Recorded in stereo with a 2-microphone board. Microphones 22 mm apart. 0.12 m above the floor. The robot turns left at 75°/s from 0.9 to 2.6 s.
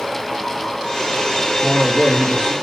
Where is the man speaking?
Straight behind, 4 m; by 2.5 s 110° left, 4 m.